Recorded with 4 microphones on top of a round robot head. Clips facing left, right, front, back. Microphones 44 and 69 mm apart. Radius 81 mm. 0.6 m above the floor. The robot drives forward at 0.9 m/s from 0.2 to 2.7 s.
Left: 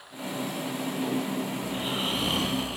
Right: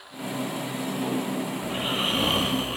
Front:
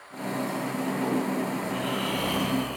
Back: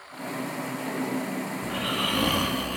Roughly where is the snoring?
Behind right.